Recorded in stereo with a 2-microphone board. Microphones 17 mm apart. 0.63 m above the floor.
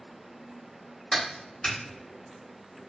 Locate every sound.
1.1 s a clap: 55° left (ahead or behind), 1.4 m